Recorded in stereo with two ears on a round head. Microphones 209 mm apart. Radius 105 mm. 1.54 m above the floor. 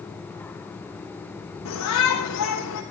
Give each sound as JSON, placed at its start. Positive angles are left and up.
{"t": 1.6, "sound": "a shout", "side_deg": 85, "distance_m": 4.0}